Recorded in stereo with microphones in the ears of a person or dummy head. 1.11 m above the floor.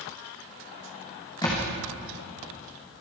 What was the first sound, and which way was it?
A thud, 20° left (ahead or behind).